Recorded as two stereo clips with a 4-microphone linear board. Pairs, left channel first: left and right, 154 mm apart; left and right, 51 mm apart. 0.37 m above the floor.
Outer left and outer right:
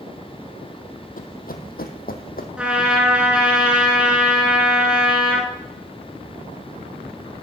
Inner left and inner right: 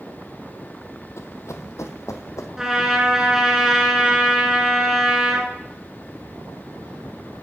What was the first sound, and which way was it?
Running footsteps, 65° left (ahead or behind).